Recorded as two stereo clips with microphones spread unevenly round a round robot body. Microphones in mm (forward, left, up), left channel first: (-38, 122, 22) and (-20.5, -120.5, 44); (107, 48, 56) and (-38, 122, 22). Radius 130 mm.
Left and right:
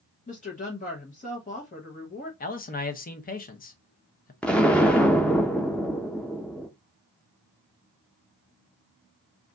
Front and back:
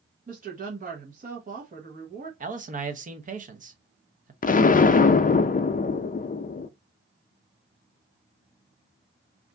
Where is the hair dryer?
No hair dryer in this recording.